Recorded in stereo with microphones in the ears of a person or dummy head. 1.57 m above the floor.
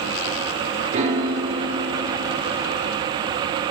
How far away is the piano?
About 0.7 m.